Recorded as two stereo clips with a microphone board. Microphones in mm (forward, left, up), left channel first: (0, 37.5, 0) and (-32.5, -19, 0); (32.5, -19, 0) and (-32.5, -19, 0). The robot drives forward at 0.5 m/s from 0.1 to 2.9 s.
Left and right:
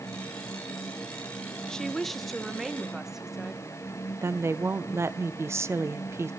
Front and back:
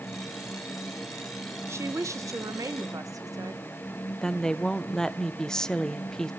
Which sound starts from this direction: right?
A woman speaking, at 4.2 s.